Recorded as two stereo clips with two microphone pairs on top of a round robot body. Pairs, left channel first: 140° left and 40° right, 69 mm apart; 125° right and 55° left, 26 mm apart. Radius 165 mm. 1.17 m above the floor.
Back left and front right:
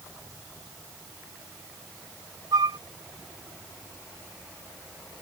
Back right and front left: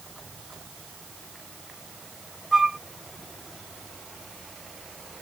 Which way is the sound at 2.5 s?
20° right.